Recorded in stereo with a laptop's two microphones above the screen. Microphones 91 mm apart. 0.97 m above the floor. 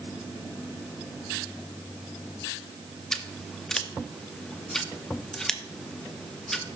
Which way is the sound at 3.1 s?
5° left (ahead or behind).